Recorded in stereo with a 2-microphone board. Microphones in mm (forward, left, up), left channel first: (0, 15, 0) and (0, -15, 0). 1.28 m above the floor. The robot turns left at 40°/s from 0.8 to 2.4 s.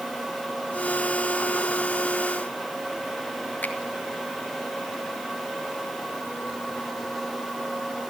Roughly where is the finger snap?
Left.